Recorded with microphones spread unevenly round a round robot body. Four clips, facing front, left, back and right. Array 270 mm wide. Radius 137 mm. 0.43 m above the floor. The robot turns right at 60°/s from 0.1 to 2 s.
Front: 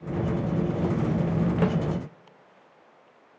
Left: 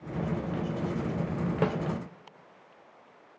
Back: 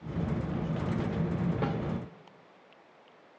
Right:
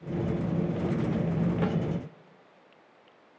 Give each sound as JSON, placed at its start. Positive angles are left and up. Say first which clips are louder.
{"t": 1.6, "sound": "a snare drum", "louder": "left 5 dB, front 9 dB", "azimuth_deg": 30, "distance_m": 2.5}